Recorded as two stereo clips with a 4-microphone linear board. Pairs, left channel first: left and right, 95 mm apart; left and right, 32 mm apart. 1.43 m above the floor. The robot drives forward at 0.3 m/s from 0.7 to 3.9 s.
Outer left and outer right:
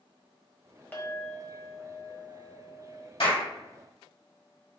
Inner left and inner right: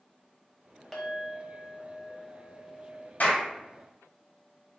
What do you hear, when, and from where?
0.9 s a clink: 15° left (ahead or behind), 0.9 m; by 3.1 s 10° left (ahead or behind), 1.4 m
3.2 s a clap: 75° left (ahead or behind), 1.8 m; by 3.4 s 80° left, 1.8 m